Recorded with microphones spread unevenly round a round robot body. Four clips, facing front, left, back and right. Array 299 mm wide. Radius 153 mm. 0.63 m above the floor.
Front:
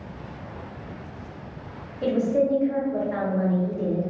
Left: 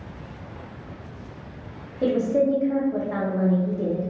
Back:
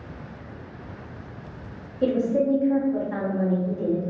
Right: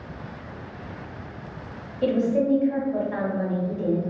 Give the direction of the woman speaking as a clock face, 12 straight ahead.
8 o'clock.